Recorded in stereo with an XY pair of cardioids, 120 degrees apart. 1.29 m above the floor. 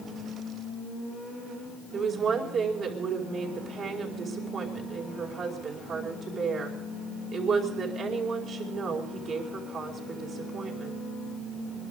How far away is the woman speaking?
About 5 m.